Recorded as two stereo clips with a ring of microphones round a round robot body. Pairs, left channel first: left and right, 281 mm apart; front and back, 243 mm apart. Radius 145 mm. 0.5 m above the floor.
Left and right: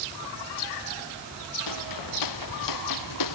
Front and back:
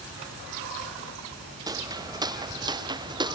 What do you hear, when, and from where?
1.7 s footsteps: 105° left; by 3.4 s 110° left